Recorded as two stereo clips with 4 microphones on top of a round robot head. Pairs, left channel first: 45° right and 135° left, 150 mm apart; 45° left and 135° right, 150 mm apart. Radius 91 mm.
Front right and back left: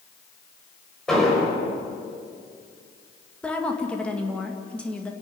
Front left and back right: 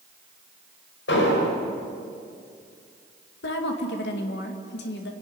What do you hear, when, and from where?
1.1 s an explosion: 45° left, 5 m
3.4 s a woman speaking: 40° left, 2 m